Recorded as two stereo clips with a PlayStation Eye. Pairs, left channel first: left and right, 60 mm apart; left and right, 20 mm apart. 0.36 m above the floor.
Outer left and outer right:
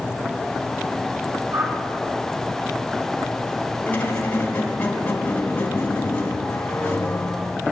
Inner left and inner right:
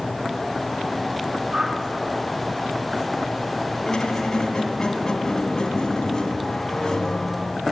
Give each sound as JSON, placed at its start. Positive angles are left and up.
{"t": 1.5, "sound": "a whoosh", "side_deg": -60, "distance_m": 3.5}
{"t": 3.9, "sound": "a squeak", "side_deg": 30, "distance_m": 2.0}